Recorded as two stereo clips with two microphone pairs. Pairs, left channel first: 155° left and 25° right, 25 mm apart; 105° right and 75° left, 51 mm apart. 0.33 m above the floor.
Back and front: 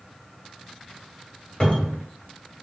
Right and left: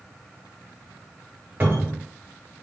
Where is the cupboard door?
110° left, 1.2 m.